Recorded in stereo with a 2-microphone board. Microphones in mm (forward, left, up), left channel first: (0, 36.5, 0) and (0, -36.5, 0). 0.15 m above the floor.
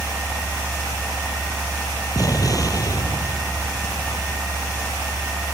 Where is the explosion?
55° left (ahead or behind).